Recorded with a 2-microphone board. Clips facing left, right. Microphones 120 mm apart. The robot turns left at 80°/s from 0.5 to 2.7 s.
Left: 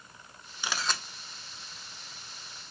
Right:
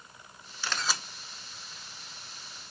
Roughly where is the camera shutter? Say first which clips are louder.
Even; ahead.